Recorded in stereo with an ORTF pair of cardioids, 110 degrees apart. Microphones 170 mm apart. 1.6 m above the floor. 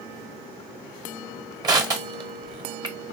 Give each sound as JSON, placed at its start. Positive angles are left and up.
{"t": 1.6, "sound": "crushing", "azimuth_deg": -25, "distance_m": 1.0}